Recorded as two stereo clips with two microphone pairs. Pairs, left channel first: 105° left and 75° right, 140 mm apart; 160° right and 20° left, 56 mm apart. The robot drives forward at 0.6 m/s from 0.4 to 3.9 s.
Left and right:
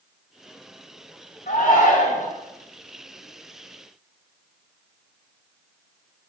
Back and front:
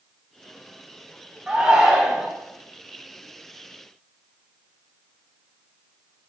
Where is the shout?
100° left, 3 m; by 2.3 s 105° left, 3.5 m.